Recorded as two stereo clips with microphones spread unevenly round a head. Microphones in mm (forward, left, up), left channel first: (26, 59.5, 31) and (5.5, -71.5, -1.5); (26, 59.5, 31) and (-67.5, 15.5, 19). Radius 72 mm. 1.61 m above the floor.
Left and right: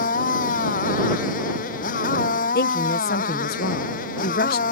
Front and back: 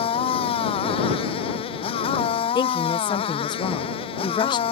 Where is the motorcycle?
55° left.